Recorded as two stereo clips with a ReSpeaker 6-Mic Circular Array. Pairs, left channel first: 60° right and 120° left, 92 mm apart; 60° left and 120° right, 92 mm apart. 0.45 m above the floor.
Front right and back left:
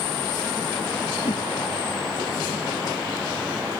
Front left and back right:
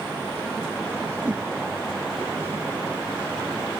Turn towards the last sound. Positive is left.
turn(degrees=-40)